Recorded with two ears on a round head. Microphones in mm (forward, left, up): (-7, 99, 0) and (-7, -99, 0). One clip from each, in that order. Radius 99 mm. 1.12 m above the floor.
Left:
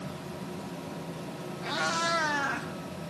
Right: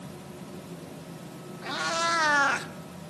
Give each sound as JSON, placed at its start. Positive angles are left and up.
{"t": 1.6, "sound": "a cat meowing", "side_deg": 0, "distance_m": 1.5}